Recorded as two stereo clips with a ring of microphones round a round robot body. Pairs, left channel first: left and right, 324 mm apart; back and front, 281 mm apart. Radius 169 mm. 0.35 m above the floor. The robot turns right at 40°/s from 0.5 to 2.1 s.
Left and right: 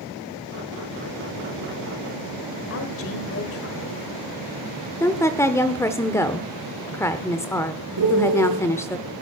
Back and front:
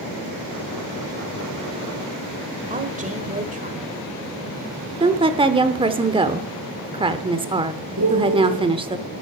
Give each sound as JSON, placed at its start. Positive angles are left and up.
{"t": 2.7, "sound": "a woman speaking", "azimuth_deg": 55, "distance_m": 1.6}
{"t": 5.0, "sound": "a woman speaking", "azimuth_deg": 25, "distance_m": 0.9}
{"t": 8.0, "sound": "a piano", "azimuth_deg": -50, "distance_m": 1.7}